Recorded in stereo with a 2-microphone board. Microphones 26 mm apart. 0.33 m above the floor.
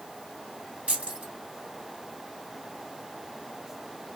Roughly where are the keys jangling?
Right.